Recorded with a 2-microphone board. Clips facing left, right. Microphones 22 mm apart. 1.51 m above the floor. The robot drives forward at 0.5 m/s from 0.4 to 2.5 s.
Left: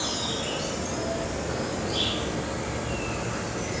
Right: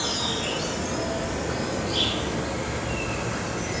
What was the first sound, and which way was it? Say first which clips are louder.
An insect: right 2 dB; 10° right (ahead or behind).